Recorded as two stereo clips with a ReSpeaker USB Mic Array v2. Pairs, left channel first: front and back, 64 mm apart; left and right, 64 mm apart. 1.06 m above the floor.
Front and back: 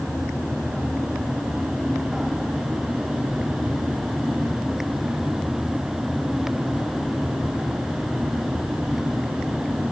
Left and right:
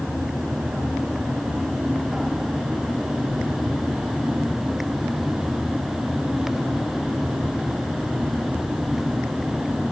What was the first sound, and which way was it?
Only background noise.